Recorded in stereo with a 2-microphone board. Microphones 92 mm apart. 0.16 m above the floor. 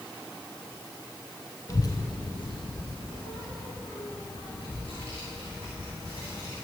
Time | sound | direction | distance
1.7 | a child speaking | 45° left (ahead or behind) | 0.8 m